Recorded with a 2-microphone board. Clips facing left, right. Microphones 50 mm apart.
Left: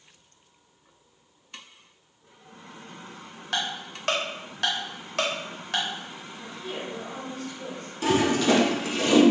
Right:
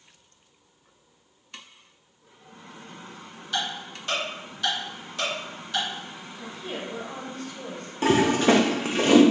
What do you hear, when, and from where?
3.5 s ticking: 70° left (ahead or behind), 1.0 m
6.4 s a woman speaking: 50° right (ahead or behind), 1.3 m
8.0 s a toilet flushing: 40° right (ahead or behind), 0.6 m